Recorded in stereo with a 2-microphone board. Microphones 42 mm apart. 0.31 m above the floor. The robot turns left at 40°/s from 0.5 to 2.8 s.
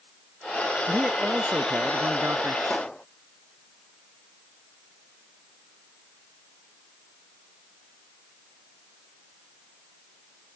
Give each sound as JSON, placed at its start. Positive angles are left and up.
{"t": 0.9, "sound": "a man speaking", "azimuth_deg": -20}
{"t": 2.7, "sound": "a pop", "side_deg": 20}